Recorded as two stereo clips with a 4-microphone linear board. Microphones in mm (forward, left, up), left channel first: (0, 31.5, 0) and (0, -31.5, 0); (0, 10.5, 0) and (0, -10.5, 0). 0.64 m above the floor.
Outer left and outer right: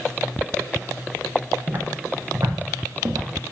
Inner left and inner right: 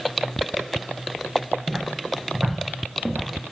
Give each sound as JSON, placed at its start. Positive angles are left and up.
{"t": 1.7, "sound": "footsteps", "side_deg": -55, "distance_m": 7.0}